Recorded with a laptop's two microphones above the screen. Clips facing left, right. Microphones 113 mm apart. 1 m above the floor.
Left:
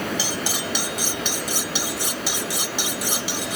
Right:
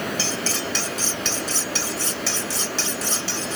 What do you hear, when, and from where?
0.2 s cutlery clinking: 15° left (ahead or behind)